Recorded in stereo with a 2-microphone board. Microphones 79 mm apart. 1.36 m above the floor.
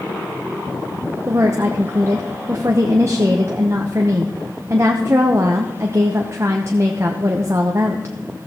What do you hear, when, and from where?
1.3 s a woman speaking: 40° right (ahead or behind), 0.8 m